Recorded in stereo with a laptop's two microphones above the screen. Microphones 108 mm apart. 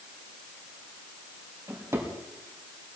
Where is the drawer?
30° right (ahead or behind), 3.5 m.